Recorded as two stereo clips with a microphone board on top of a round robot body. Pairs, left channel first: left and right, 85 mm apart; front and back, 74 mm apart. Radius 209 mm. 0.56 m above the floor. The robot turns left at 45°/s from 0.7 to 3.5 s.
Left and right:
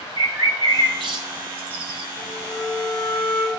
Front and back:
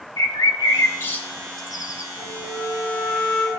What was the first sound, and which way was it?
A bird, 45° right.